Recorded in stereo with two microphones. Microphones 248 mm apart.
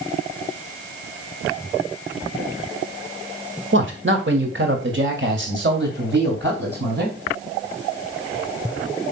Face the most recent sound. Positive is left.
turn(degrees=-45)  # may be behind; listen again after turning